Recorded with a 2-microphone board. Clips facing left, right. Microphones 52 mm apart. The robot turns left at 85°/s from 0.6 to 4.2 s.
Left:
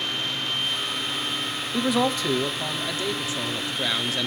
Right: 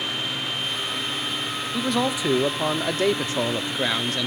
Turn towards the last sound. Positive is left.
turn(degrees=170)